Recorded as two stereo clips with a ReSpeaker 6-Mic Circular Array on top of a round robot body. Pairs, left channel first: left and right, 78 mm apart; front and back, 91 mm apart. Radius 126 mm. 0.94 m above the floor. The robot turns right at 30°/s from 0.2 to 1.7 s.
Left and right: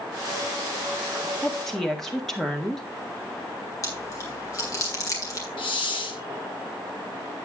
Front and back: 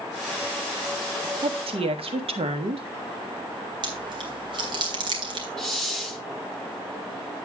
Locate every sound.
1.4 s a woman speaking: 170° left, 1.8 m; by 2.9 s 175° left, 1.8 m
3.8 s chewing: 140° left, 2.5 m
5.6 s a hiss: 85° left, 0.7 m